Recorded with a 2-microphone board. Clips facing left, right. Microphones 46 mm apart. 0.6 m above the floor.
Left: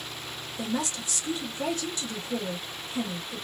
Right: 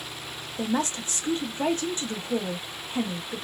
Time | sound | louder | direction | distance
0.6 | a woman speaking | right 4 dB | 35° right (ahead or behind) | 0.7 m